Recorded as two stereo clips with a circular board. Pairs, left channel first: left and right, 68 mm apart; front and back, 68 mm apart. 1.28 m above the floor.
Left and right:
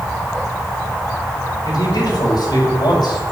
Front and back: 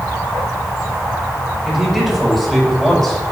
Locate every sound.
1.6 s a man speaking: 95° left, 5.5 m; by 3.2 s 85° left, 6 m